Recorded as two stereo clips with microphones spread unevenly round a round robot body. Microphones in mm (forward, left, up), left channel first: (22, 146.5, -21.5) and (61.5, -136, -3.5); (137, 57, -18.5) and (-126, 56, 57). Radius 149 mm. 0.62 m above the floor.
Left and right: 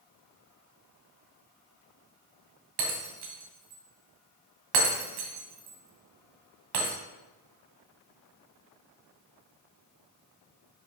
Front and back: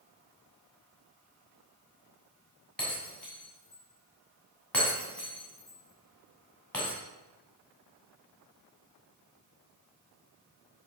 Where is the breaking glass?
85° right, 1.9 m.